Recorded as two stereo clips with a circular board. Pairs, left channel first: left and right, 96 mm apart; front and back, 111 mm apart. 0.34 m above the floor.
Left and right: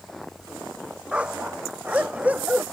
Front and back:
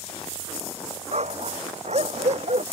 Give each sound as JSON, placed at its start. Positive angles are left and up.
{"t": 1.1, "sound": "a dog barking", "azimuth_deg": -170}